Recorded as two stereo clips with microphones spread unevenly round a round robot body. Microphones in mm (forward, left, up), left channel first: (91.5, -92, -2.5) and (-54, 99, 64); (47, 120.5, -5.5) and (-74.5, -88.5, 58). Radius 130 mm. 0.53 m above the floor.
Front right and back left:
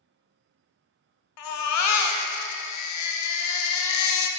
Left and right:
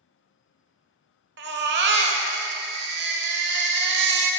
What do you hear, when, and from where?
1.4 s a baby crying: 70° right, 0.7 m